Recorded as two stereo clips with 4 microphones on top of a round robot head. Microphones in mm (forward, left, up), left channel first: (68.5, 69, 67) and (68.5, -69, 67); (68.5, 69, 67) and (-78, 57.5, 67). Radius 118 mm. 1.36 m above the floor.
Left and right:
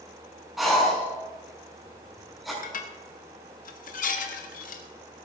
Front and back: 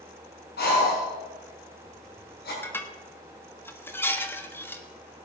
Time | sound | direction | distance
0.6 | breathing | straight ahead | 5.5 m
2.6 | dishes clattering | 80° left | 1.5 m